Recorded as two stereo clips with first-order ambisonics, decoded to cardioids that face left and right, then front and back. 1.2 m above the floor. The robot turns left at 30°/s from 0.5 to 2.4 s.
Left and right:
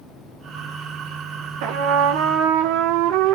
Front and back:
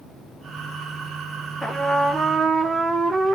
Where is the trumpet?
90° right, 0.9 m; by 3.4 s 110° right, 0.9 m.